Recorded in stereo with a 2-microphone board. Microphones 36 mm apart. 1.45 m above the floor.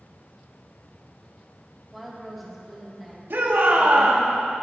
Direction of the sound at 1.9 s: Centre (ahead or behind).